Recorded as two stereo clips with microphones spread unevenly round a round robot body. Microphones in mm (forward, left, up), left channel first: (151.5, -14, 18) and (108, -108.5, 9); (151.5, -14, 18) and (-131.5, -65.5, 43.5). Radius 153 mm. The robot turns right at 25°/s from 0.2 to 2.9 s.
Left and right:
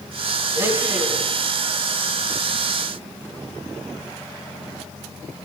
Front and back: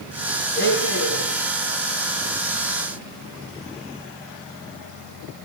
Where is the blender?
50° right, 1.7 m; by 1.3 s 30° right, 1.7 m.